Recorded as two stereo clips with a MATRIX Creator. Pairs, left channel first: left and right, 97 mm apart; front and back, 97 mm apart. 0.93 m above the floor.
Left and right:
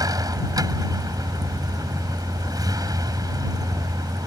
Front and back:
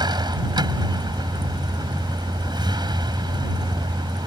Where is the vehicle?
140° right.